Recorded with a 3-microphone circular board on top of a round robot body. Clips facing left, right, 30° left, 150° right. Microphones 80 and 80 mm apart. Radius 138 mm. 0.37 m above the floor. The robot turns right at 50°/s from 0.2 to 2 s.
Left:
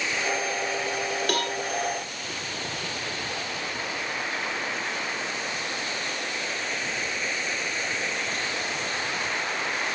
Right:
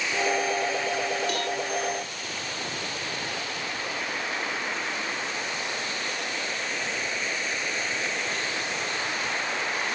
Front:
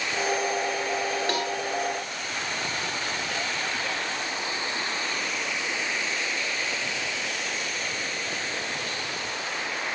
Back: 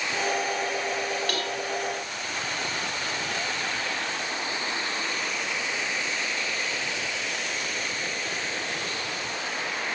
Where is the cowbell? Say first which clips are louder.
Left 1 dB, front 2 dB; 90° left, 2 m; by 1.6 s 105° left, 2 m.